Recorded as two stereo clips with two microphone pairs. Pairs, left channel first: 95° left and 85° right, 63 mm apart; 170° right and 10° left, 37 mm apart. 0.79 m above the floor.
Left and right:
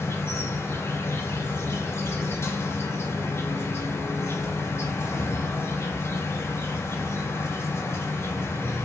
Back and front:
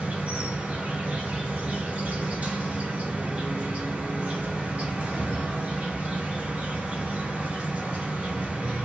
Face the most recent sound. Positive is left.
turn(degrees=55)